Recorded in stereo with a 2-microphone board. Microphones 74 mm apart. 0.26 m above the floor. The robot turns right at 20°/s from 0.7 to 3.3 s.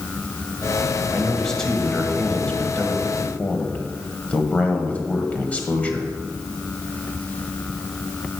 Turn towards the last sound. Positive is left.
turn(degrees=20)  # may be behind; listen again after turning